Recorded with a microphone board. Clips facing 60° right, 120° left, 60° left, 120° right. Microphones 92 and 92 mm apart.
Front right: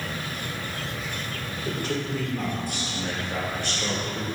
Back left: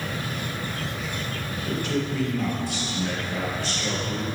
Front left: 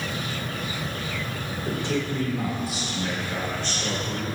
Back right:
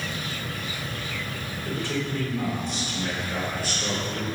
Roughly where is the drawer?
I don't hear a drawer.